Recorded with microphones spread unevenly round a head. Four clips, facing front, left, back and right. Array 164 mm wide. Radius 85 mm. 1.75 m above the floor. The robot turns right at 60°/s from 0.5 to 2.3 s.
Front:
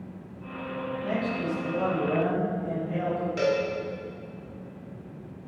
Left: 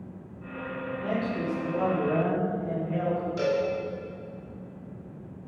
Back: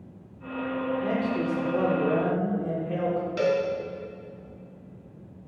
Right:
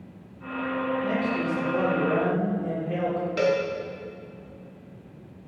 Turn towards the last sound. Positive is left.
turn(degrees=-80)